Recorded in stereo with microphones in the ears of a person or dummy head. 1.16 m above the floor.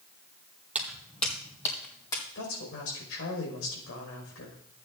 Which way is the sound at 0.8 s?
10° right (ahead or behind).